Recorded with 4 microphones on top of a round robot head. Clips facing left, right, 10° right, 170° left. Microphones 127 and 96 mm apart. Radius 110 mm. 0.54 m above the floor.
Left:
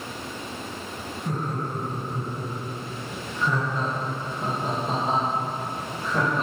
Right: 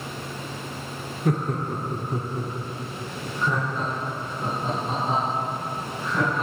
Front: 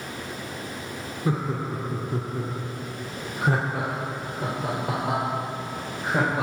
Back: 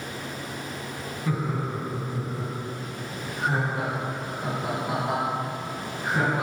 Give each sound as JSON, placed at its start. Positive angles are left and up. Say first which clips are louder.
{"t": 1.2, "sound": "laughter", "louder": "right 5 dB, front 2 dB", "azimuth_deg": -75, "distance_m": 1.2}